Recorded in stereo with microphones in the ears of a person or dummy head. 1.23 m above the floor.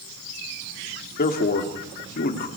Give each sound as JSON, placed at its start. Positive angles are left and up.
{"t": 1.2, "sound": "a man speaking", "side_deg": 50, "distance_m": 2.5}